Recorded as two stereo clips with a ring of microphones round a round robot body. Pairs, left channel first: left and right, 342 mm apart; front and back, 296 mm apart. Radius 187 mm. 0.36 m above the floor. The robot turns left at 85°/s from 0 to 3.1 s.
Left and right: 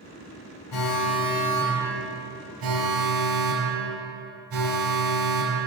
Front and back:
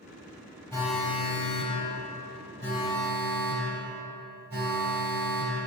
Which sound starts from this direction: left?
An alarm, at 0.7 s.